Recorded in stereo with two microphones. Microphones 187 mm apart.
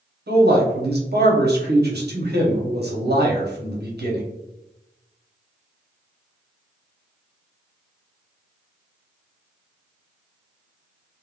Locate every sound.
0.3 s a man speaking: 70° right (ahead or behind), 0.8 m